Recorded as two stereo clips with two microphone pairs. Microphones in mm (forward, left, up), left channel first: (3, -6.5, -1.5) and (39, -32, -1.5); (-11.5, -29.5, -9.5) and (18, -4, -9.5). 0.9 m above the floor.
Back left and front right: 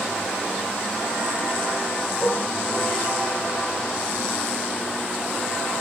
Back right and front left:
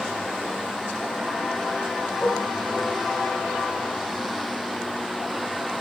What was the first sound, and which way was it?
Dishes clattering, 120° right.